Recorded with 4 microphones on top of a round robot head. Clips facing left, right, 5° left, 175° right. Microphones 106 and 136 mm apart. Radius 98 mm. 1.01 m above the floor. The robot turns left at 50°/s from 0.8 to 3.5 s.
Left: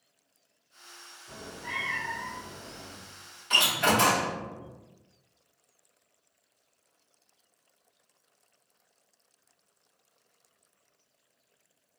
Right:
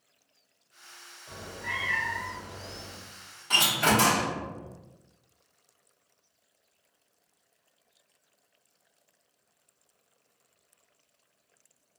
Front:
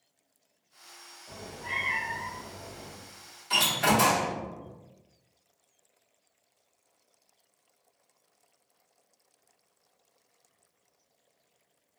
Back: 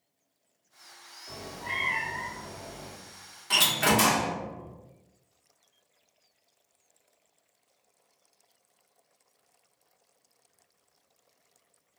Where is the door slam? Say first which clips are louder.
Even, even; 145° right, 0.9 m.